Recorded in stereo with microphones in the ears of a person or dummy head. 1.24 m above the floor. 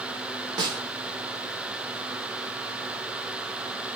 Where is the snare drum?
30° right (ahead or behind), 2.5 m.